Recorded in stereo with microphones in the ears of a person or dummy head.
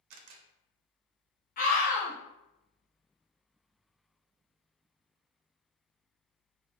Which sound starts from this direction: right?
A camera shutter, at 0.1 s.